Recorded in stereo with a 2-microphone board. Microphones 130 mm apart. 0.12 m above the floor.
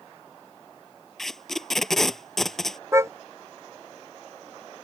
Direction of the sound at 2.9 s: 20° right (ahead or behind).